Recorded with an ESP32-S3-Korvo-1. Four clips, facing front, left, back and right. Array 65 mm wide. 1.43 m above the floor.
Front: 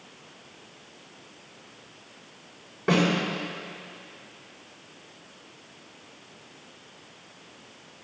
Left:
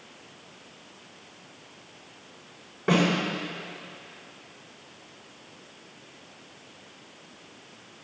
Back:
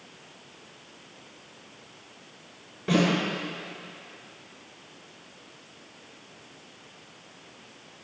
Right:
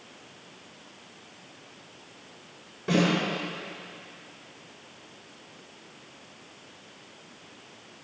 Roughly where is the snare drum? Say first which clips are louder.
Left 1 dB, front 1 dB; ahead left.